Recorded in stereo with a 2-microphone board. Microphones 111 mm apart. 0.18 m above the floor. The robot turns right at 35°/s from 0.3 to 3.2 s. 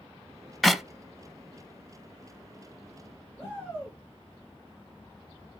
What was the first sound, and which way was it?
A clap, centre (ahead or behind).